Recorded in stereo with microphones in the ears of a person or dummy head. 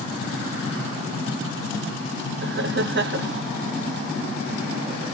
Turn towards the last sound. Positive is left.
turn(degrees=-50)  # may be behind; listen again after turning